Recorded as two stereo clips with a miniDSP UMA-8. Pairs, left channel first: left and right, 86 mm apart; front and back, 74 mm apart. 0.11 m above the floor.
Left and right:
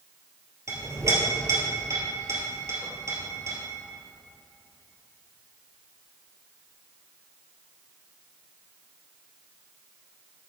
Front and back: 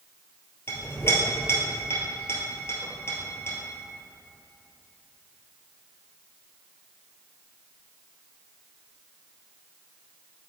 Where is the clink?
45° right, 2.0 m.